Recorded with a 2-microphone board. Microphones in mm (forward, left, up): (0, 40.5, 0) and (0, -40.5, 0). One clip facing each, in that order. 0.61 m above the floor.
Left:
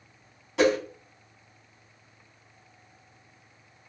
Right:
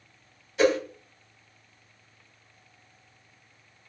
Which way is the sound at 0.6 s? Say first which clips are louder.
Even; 80° left.